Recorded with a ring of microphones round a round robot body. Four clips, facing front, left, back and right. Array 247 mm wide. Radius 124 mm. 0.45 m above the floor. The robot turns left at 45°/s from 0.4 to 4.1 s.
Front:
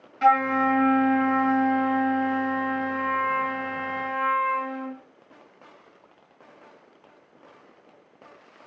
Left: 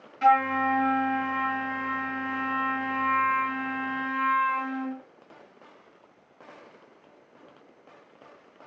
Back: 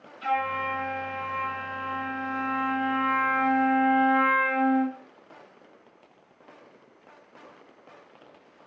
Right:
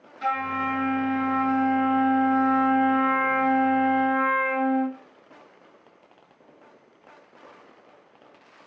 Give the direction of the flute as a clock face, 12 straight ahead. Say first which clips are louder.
Left 5 dB, front 8 dB; 12 o'clock.